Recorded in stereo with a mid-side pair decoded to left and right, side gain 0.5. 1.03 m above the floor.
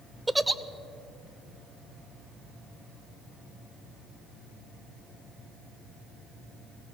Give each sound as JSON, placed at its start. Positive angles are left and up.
{"t": 0.3, "sound": "a giggle", "azimuth_deg": -15, "distance_m": 0.6}